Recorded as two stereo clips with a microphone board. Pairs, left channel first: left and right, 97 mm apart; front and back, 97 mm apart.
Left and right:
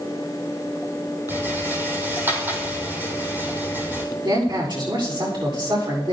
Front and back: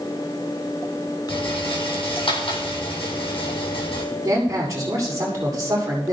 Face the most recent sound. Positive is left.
turn(degrees=-125)